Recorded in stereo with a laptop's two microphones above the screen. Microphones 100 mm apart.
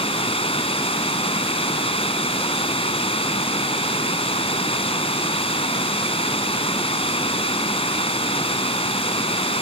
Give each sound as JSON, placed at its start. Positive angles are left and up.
{"t": 0.0, "sound": "running water", "side_deg": 70}